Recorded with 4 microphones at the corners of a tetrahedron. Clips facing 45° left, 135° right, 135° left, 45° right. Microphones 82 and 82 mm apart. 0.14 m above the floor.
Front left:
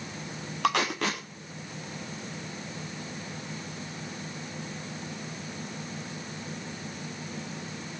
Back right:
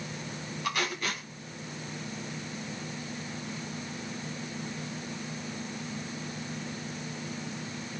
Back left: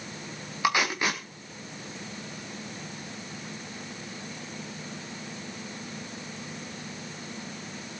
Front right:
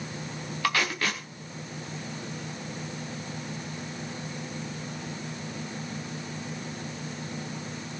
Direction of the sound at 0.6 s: 60° left.